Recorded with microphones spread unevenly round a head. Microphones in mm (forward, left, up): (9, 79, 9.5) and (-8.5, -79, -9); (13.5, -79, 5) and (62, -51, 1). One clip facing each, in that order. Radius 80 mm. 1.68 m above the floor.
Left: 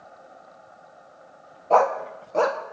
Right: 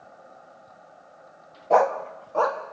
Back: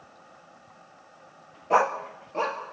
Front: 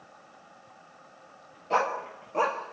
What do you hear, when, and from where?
1.7 s a dog barking: 175° right, 1.1 m; by 2.7 s 95° left, 1.4 m